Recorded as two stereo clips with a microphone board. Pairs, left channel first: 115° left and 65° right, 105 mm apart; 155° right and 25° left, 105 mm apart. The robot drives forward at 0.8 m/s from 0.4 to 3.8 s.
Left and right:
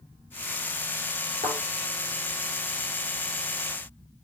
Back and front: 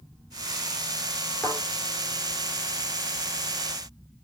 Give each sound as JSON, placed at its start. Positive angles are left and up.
{"t": 1.4, "sound": "a thud", "azimuth_deg": -80, "distance_m": 3.5}